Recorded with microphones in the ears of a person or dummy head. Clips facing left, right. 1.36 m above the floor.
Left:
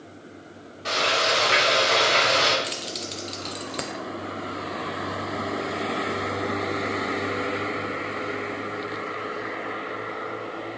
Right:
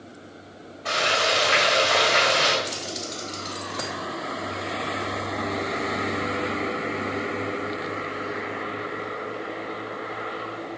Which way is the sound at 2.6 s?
40° left (ahead or behind).